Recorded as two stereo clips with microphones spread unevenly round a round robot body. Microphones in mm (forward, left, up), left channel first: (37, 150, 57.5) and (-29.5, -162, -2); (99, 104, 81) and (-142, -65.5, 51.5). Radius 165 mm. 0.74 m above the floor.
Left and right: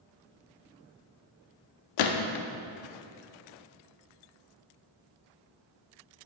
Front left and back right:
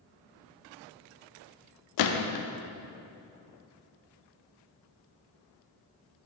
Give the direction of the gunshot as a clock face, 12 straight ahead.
10 o'clock.